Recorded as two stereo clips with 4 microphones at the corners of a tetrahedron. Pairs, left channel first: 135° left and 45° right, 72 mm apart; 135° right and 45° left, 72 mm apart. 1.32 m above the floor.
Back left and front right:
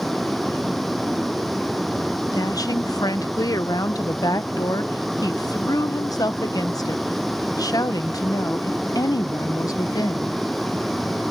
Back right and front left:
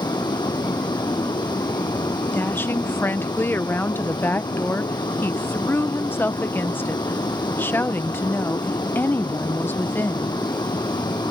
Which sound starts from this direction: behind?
A woman speaking, at 2.3 s.